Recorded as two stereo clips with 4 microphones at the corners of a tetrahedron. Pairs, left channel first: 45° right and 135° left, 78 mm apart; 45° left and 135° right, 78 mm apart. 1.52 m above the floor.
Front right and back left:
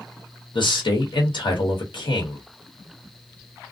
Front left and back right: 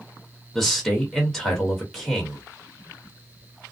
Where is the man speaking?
40° right, 1.2 m.